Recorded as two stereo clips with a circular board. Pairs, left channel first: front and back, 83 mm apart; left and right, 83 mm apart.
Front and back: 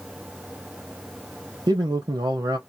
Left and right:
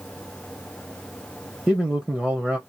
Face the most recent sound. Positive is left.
turn(degrees=-175)